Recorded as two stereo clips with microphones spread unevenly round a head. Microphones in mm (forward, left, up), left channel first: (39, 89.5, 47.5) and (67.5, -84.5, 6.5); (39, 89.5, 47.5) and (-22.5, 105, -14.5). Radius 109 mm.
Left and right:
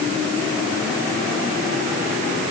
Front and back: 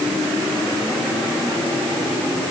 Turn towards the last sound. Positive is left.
No sound to turn to.